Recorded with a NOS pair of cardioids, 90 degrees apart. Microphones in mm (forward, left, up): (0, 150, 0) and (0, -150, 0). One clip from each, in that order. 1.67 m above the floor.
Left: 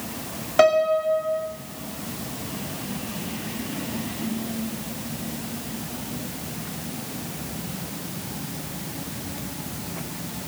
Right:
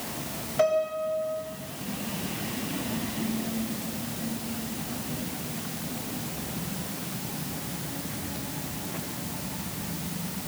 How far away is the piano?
About 3.5 m.